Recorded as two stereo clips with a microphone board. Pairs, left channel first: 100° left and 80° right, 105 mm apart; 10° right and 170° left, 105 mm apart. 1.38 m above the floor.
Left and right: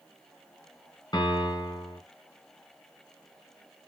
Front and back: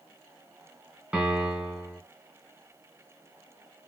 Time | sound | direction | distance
1.1 | a piano | 100° left | 1.3 m